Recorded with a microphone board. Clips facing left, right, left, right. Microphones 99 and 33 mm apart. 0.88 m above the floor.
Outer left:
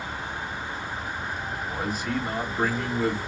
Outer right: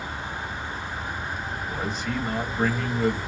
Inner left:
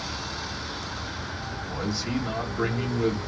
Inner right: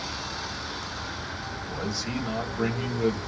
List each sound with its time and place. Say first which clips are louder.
1.6 s a man speaking: outer left 1 dB, inner left 2 dB; 5° left (ahead or behind), 1.5 m